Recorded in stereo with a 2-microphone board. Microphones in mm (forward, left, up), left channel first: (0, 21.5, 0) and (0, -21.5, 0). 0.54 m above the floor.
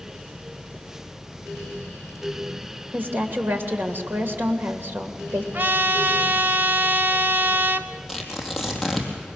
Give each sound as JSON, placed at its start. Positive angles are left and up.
{"t": 2.9, "sound": "a woman speaking", "side_deg": -60, "distance_m": 2.5}
{"t": 5.5, "sound": "a trumpet", "side_deg": -55, "distance_m": 0.7}
{"t": 8.1, "sound": "tearing paper", "side_deg": 5, "distance_m": 3.0}